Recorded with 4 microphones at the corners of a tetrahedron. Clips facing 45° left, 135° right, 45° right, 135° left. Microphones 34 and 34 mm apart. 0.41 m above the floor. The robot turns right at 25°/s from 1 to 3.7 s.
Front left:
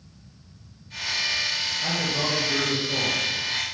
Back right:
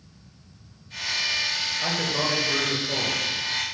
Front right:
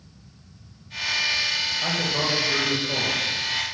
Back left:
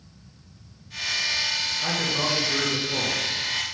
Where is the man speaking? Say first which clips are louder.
Back right 1 dB, front right 1 dB; 100° right, 1.3 m; by 3.2 s 65° right, 1.3 m.